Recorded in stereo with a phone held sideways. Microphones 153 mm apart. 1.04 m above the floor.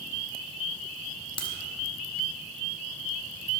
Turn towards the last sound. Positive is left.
turn(degrees=35)  # may be behind; listen again after turning